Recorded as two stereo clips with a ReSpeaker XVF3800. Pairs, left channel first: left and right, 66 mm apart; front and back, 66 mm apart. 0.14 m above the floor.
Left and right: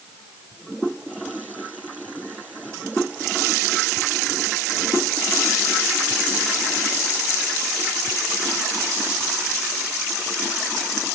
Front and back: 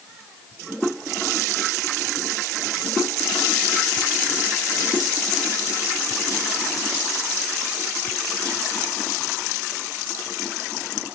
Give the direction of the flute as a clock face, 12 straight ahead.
I don't hear a flute.